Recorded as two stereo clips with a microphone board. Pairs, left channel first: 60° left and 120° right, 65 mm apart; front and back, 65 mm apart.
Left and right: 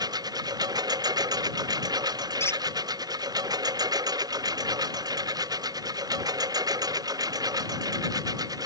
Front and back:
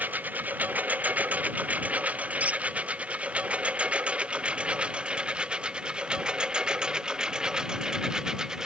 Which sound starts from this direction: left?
A squeak, at 2.4 s.